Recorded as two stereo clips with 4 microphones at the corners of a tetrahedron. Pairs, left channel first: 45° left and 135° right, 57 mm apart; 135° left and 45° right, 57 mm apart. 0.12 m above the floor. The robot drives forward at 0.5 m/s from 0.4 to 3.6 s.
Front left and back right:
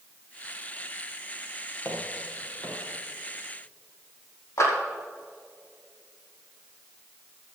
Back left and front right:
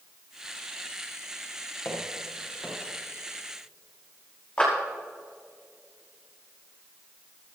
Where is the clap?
65° left, 5.5 m.